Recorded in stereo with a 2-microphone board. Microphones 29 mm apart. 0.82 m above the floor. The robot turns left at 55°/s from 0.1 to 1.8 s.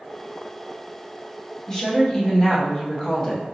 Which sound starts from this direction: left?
A woman speaking, at 1.7 s.